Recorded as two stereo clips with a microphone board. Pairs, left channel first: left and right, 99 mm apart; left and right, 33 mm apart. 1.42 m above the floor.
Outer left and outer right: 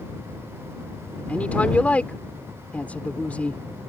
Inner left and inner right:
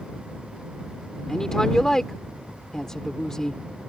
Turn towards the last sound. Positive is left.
turn(degrees=15)  # may be behind; listen again after turning